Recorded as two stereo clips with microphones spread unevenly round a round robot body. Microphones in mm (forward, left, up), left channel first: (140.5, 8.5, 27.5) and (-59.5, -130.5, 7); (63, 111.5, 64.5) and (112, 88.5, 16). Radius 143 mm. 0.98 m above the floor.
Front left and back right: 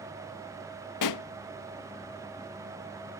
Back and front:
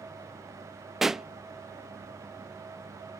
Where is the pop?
55° left.